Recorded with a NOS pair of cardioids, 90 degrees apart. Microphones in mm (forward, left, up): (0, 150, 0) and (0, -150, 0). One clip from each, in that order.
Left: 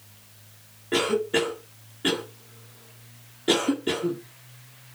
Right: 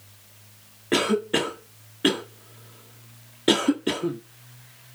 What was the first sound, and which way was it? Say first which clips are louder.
A cough: right 1 dB; 40° right.